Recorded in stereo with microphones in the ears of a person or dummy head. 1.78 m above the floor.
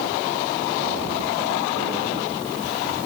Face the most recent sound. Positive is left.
No sound to turn to.